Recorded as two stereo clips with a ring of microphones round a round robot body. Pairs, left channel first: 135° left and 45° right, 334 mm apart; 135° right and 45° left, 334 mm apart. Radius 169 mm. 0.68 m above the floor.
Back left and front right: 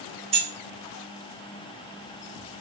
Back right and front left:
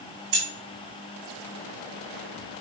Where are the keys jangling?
25° left, 0.8 m.